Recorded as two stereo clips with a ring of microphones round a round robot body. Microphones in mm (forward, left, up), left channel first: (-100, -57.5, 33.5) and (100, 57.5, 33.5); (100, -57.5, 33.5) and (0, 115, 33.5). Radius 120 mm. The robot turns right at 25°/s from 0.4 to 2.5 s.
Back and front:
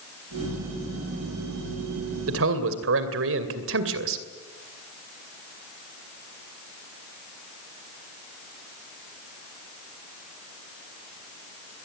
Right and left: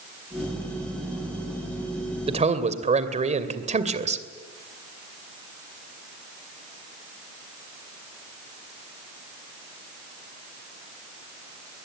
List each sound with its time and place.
2.3 s a man speaking: 60° left, 2.5 m; by 4.2 s 65° left, 2.5 m